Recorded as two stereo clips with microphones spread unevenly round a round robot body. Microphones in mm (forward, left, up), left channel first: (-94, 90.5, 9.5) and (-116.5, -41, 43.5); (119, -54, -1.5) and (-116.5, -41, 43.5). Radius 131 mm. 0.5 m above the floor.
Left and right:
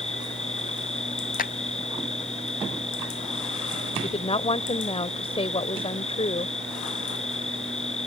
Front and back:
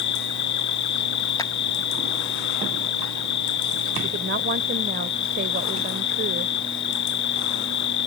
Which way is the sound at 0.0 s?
15° left.